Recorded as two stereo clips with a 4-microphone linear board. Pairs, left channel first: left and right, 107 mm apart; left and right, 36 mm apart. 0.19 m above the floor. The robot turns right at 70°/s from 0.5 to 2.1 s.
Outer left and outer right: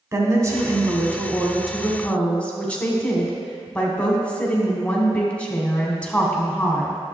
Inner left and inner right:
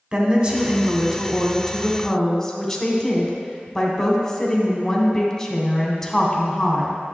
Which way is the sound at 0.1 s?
30° right (ahead or behind).